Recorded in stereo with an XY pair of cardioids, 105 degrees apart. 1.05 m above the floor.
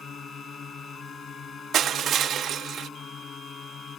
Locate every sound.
0.0 s a drone: 50° left
1.7 s crushing: 65° right